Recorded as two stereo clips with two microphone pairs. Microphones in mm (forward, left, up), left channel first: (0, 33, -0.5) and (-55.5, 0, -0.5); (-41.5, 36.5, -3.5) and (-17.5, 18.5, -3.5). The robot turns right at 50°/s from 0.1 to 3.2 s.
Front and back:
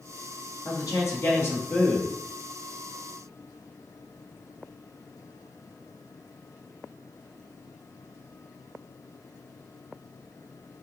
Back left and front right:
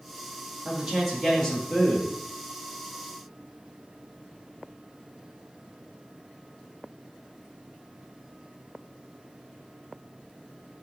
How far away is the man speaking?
About 1.8 m.